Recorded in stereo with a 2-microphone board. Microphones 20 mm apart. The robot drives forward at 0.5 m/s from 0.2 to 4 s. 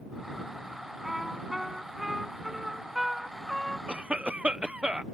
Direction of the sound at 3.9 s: 75° right (ahead or behind).